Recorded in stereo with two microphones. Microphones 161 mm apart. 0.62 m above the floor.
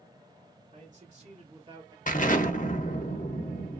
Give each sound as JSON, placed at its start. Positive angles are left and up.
{"t": 0.7, "sound": "a man speaking", "side_deg": -55, "distance_m": 1.9}
{"t": 2.1, "sound": "an explosion", "side_deg": 55, "distance_m": 0.6}